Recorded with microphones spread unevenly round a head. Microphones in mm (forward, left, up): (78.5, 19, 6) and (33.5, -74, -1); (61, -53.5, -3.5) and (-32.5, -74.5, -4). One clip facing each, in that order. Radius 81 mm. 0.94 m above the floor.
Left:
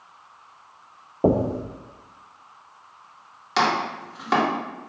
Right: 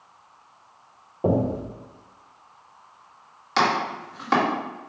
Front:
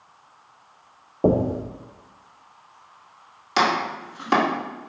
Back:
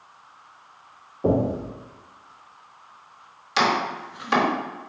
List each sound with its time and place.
1.2 s knocking: 20° left, 0.6 m
3.6 s chopping: 25° right, 1.7 m